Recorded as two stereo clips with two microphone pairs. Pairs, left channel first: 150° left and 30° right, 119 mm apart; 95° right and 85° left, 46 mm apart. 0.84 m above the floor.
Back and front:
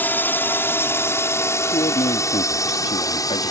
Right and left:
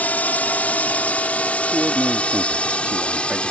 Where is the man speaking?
145° left.